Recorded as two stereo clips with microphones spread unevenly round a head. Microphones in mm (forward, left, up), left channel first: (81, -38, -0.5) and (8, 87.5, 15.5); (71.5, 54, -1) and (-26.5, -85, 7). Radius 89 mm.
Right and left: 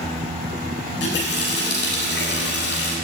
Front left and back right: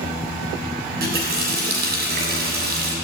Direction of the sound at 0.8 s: 95° right.